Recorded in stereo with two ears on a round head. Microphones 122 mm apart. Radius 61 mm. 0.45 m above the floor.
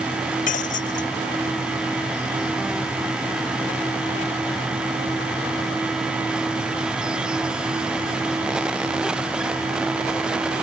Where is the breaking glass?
65° left (ahead or behind).